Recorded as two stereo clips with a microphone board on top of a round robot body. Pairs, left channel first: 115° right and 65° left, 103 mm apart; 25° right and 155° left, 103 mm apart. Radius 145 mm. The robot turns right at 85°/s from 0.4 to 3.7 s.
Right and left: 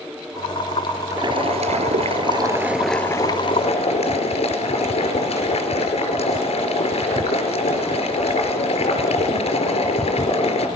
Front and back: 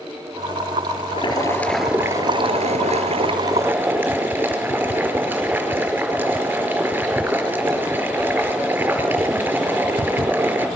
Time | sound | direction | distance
1.1 | boiling | 10° left | 4.5 m